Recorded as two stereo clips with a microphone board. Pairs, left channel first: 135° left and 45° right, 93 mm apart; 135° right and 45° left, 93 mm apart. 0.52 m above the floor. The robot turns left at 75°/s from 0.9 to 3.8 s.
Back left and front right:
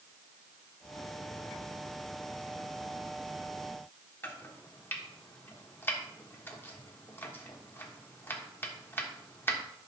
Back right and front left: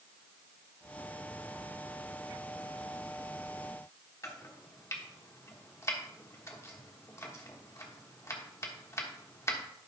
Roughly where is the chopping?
Behind.